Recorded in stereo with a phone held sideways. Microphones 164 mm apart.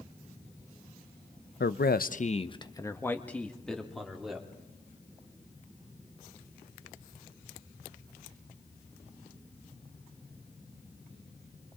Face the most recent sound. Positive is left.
turn(degrees=0)  # may be behind; listen again after turning